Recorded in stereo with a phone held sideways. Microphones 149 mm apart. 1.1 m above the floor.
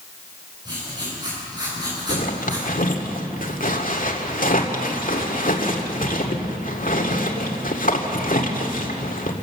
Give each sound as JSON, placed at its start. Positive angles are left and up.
{"t": 0.7, "sound": "writing", "side_deg": -30, "distance_m": 8.5}
{"t": 2.1, "sound": "a zipper", "side_deg": 65, "distance_m": 2.0}